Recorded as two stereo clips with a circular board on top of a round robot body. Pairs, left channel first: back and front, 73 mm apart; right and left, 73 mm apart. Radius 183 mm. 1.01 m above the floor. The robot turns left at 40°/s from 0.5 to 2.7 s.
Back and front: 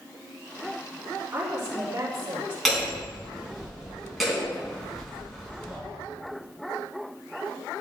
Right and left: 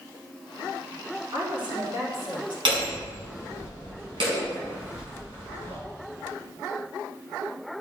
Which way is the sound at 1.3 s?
70° left.